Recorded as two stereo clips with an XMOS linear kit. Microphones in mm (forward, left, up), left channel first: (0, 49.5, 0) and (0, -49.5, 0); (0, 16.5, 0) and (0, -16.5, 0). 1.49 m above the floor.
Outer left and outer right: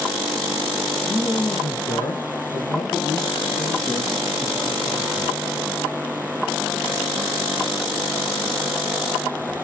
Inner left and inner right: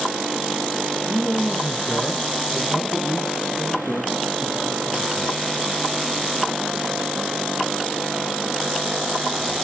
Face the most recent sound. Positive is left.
turn(degrees=45)  # may be behind; listen again after turning